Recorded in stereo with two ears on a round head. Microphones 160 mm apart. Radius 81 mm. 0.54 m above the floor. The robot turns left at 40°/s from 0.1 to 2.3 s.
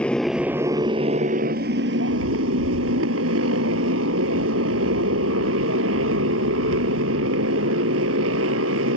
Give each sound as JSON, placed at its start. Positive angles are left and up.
{"t": 0.0, "sound": "a motorcycle", "azimuth_deg": 5}